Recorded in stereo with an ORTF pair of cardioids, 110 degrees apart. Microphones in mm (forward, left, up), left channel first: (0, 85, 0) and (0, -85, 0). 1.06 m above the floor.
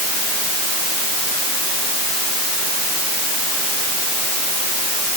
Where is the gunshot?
I don't hear a gunshot.